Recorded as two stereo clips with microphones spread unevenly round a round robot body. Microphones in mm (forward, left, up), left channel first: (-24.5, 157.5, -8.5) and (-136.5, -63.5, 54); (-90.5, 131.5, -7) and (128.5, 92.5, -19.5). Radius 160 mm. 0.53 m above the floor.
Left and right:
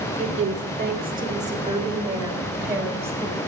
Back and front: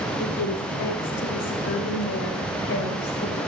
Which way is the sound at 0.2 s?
150° right.